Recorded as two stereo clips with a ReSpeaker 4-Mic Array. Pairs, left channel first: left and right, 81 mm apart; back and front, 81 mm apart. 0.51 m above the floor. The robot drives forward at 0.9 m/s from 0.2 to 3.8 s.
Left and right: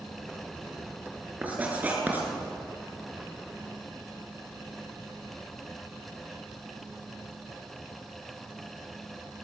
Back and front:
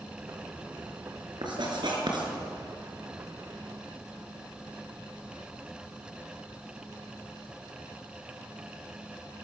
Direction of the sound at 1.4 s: 20° right.